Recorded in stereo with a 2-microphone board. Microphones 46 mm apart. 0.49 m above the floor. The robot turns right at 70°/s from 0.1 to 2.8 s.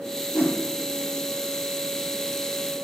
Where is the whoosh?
50° left (ahead or behind), 0.5 m; by 0.6 s 55° left (ahead or behind), 0.5 m.